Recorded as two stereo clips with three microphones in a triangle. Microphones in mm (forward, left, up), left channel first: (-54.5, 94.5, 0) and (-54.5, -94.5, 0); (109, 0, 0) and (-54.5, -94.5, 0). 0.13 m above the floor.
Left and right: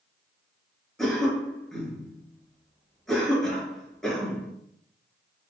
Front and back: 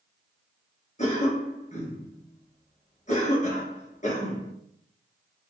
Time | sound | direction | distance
1.0 | a cough | 5° left | 1.7 m